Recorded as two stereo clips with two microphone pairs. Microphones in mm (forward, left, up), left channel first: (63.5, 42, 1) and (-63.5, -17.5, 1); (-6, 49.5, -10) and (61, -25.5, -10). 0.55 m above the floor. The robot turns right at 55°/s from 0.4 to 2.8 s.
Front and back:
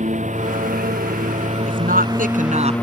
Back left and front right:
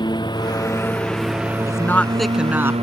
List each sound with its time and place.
0.0 s a lawn mower: 175° left; by 2.8 s 55° right
1.7 s a woman speaking: 170° right; by 2.7 s 110° right